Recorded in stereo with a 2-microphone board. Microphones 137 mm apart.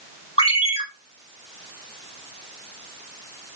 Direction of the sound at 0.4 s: 50° left (ahead or behind).